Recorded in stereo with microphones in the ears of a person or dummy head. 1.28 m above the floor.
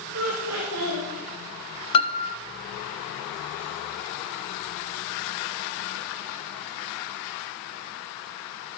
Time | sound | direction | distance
0.1 | laughter | 70° right (ahead or behind) | 1.8 m
1.9 | a piano | 30° left (ahead or behind) | 0.6 m